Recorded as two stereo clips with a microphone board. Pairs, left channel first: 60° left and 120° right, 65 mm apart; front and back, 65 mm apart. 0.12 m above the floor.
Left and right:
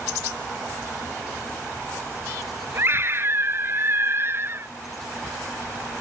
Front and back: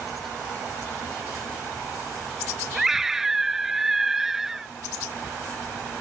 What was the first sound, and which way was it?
A scream, 100° right.